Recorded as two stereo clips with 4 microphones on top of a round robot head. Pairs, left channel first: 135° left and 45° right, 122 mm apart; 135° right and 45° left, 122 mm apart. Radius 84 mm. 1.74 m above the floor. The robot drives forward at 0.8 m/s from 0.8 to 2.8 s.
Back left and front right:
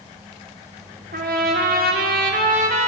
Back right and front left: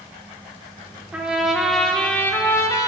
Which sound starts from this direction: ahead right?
A trumpet, at 1.1 s.